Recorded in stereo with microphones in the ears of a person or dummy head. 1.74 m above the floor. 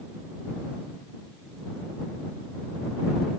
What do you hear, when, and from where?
Only background noise.